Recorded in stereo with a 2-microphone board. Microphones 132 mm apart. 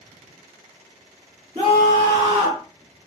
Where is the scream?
20° right (ahead or behind), 2.0 m; by 2.6 s 25° right (ahead or behind), 1.6 m.